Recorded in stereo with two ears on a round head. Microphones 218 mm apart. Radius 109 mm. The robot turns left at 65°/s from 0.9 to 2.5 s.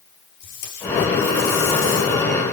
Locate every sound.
0.4 s tape being pulled: 130° left, 4.5 m; by 2.5 s 25° left, 4.5 m